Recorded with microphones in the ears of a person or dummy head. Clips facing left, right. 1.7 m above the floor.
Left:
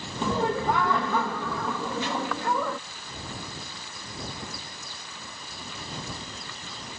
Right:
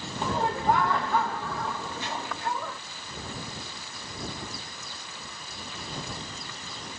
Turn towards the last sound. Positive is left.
turn(degrees=50)  # may be behind; listen again after turning